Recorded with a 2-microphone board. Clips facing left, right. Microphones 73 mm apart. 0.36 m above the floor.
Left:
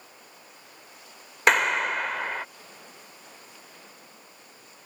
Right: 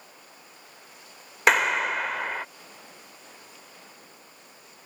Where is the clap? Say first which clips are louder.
Even; centre (ahead or behind).